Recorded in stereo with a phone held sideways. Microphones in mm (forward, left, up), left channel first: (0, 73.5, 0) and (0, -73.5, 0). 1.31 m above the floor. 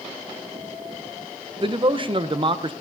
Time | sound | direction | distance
1.6 | a man speaking | 35° right (ahead or behind) | 0.8 m